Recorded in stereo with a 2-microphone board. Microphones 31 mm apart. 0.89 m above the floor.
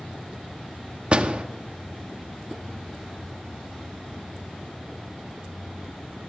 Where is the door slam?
40° right (ahead or behind), 0.8 m.